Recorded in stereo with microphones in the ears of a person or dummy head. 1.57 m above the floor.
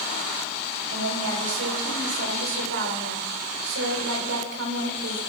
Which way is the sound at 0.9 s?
70° right (ahead or behind).